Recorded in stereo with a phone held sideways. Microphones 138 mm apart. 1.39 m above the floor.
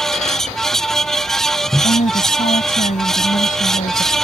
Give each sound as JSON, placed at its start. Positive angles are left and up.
{"t": 0.0, "sound": "a fan", "side_deg": 5}
{"t": 1.8, "sound": "a woman speaking", "side_deg": 75}